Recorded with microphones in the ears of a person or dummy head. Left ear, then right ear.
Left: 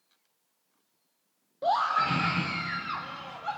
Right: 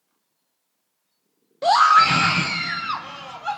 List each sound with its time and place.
1.6 s a scream: 65° right (ahead or behind), 0.8 m; by 3.6 s 30° right (ahead or behind), 2 m